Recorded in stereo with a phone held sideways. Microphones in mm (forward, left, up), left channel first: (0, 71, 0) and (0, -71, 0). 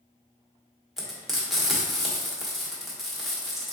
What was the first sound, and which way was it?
Frying, centre (ahead or behind).